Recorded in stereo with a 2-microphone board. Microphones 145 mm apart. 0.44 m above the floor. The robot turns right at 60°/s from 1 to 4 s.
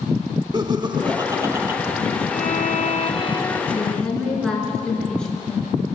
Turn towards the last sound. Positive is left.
turn(degrees=5)  # may be behind; listen again after turning